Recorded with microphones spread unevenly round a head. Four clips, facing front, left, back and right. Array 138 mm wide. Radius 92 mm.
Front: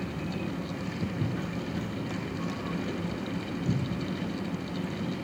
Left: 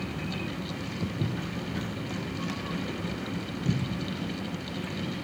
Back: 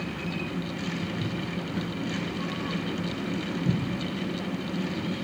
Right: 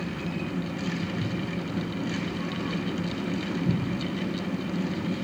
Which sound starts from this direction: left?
Footsteps, at 1.0 s.